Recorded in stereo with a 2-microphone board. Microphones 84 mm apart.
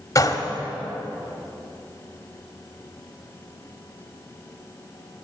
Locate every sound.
0.1 s a gunshot: 40° left (ahead or behind), 1.4 m